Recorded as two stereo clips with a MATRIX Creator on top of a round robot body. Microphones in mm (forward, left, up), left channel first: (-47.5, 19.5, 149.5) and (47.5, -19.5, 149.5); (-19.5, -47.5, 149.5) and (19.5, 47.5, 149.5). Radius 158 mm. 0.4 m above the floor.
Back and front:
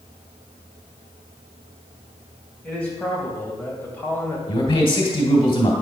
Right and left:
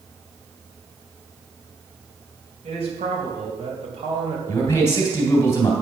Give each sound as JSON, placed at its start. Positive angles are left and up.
{"t": 2.6, "sound": "a man speaking", "azimuth_deg": 80, "distance_m": 3.5}
{"t": 4.5, "sound": "a man speaking", "azimuth_deg": -170, "distance_m": 2.5}